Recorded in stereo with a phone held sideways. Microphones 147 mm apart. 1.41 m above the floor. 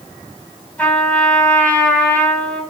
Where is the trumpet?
10° left (ahead or behind), 1.4 m.